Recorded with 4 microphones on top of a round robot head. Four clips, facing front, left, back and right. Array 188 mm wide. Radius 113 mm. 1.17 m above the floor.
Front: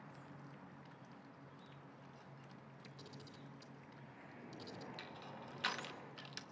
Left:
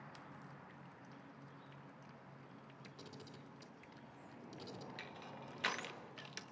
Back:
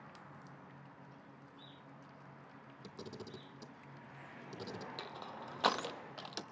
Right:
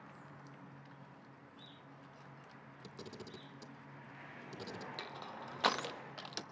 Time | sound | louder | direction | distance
2.8 | a camera shutter | right 7 dB, back 10 dB | 150° right | 1.1 m
5.0 | crushing | right 5 dB, back 5 dB | 145° right | 0.6 m